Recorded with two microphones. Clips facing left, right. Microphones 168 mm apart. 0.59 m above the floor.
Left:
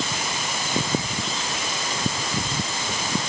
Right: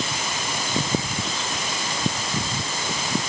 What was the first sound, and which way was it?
Only background noise.